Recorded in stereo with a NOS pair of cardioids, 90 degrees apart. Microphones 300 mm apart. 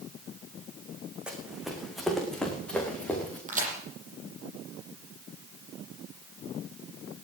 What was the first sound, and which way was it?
Running footsteps, 5° right.